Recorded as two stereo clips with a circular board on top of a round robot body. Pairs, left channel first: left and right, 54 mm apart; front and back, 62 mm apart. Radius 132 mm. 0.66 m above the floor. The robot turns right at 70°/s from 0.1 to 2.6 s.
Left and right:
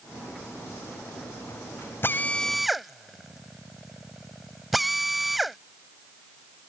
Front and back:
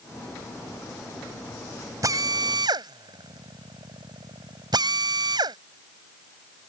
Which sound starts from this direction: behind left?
A drill, at 2.0 s.